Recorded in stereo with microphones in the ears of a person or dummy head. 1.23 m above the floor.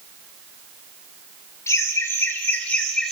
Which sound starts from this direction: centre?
Laughter, at 1.7 s.